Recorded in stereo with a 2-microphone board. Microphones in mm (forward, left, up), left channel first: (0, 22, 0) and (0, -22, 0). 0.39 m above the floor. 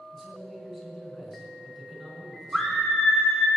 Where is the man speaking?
10° right (ahead or behind), 4.5 m.